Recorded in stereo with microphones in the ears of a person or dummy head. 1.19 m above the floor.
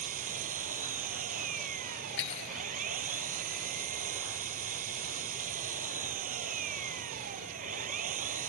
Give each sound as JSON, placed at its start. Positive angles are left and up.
{"t": 0.0, "sound": "an engine running", "side_deg": -45}
{"t": 2.2, "sound": "cutlery clinking", "side_deg": 65}